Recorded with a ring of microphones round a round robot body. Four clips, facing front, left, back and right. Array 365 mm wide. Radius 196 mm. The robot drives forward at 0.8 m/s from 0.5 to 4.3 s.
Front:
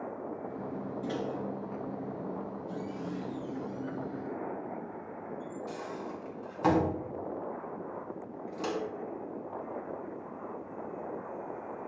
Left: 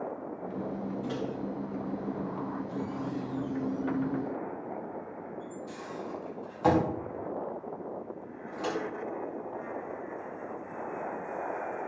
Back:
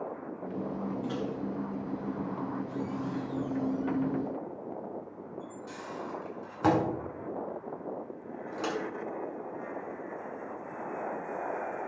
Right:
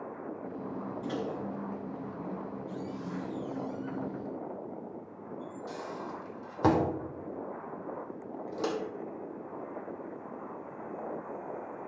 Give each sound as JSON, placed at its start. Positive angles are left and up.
{"t": 1.0, "sound": "a microwave", "azimuth_deg": -40, "distance_m": 3.0}